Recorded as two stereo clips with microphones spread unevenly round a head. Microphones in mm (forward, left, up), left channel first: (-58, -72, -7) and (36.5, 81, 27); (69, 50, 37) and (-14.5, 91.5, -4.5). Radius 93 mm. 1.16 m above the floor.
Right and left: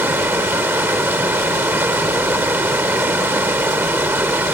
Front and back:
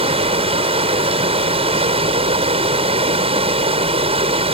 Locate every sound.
0.0 s running water: 135° left